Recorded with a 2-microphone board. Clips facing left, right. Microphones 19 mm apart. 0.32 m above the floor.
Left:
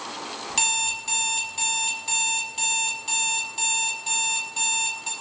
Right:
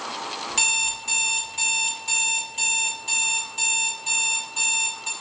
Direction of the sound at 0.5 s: 10° left (ahead or behind).